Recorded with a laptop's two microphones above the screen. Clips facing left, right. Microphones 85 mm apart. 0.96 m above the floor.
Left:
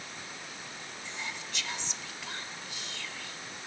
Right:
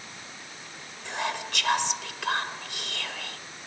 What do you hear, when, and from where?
1.1 s whispering: 75° right (ahead or behind)